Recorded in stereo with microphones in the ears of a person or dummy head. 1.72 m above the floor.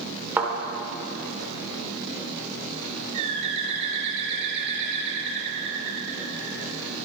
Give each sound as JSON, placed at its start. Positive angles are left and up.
{"t": 0.4, "sound": "a thud", "side_deg": -10, "distance_m": 3.0}
{"t": 3.1, "sound": "a bird", "side_deg": -35, "distance_m": 2.5}